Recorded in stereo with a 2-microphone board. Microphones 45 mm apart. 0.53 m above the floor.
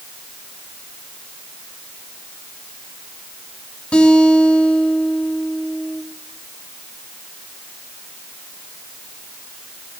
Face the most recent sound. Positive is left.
turn(degrees=25)  # may be behind; listen again after turning